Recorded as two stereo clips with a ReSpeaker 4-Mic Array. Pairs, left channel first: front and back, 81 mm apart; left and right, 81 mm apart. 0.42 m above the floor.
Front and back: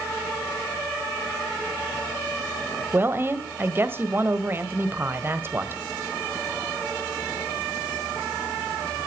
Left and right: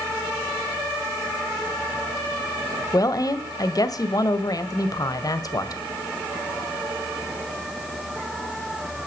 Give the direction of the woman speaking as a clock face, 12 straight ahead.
8 o'clock.